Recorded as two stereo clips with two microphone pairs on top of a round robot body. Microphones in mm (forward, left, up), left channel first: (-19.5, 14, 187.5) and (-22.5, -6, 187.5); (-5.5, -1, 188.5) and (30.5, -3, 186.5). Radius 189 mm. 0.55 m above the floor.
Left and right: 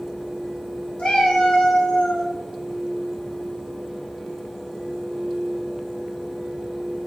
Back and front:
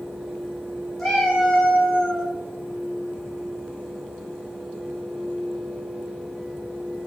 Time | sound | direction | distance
1.0 | a cat meowing | 95° left | 1.6 m